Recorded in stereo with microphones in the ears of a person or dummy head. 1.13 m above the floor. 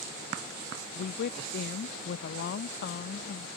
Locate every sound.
0.9 s a woman speaking: 55° left (ahead or behind)